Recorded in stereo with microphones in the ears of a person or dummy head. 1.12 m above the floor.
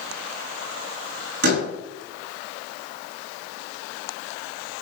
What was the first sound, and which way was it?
A door slam, 65° right (ahead or behind).